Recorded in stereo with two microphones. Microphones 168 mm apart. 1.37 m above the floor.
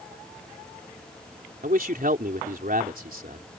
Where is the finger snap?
I don't hear a finger snap.